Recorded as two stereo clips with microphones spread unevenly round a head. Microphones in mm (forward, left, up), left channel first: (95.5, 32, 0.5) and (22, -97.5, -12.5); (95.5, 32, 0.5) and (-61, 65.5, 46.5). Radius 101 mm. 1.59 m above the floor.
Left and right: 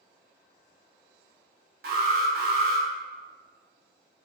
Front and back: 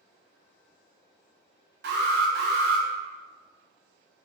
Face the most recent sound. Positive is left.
turn(degrees=-160)